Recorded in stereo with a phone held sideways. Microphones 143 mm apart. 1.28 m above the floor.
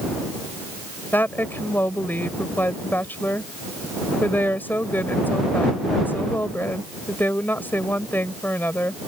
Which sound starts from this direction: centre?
A woman speaking, at 1.1 s.